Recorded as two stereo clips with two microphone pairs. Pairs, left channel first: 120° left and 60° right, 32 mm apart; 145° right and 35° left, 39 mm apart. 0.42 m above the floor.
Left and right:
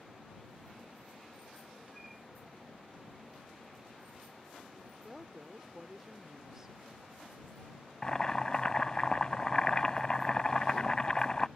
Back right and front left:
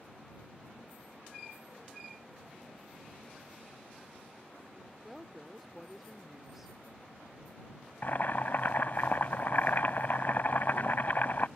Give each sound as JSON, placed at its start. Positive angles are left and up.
{"t": 5.0, "sound": "a woman speaking", "azimuth_deg": -25}
{"t": 8.0, "sound": "boiling", "azimuth_deg": 180}